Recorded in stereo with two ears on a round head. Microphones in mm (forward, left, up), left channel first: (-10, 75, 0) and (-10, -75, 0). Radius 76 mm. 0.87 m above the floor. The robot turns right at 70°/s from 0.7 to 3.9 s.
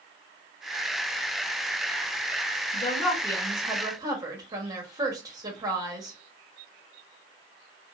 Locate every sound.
2.7 s a woman speaking: 120° left, 1.2 m; by 6.1 s 155° right, 1.2 m